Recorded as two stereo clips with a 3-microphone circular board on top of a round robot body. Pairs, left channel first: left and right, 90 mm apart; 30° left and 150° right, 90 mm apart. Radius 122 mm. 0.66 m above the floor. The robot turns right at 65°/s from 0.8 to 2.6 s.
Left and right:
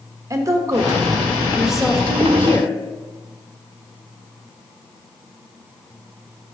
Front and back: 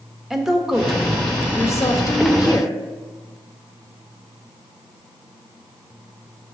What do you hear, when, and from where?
0.3 s a woman speaking: 70° right, 1.2 m; by 2.8 s 50° left, 1.2 m